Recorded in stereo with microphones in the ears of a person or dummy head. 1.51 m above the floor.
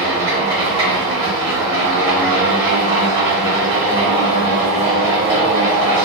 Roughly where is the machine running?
Right.